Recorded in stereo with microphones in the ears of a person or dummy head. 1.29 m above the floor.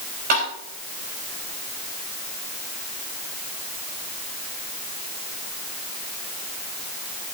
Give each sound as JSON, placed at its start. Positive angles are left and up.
{"t": 0.3, "sound": "tapping", "side_deg": -50, "distance_m": 4.0}